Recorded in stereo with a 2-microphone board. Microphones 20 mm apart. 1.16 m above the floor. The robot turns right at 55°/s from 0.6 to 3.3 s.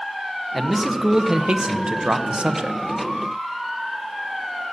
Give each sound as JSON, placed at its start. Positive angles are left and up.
{"t": 0.5, "sound": "a man speaking", "azimuth_deg": 175, "distance_m": 1.0}